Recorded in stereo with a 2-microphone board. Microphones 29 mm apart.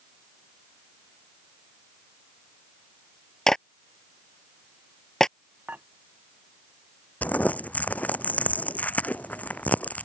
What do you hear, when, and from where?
3.5 s a clap: 20° left (ahead or behind)
5.7 s dishes clattering: 85° right
7.2 s crumpling: 75° left (ahead or behind)